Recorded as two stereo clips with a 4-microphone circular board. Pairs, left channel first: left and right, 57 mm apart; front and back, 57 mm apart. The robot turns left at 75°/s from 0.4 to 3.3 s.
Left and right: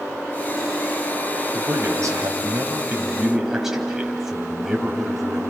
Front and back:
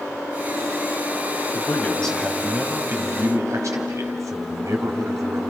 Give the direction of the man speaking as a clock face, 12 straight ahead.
1 o'clock.